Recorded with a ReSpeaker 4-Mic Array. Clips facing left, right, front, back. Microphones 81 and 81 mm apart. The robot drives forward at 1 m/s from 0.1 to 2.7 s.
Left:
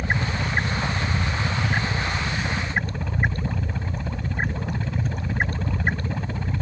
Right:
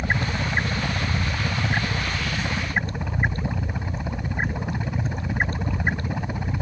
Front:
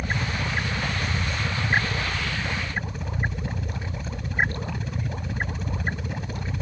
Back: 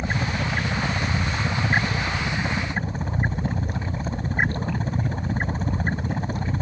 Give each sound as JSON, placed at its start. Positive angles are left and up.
{"t": 0.0, "sound": "a helicopter", "azimuth_deg": -145}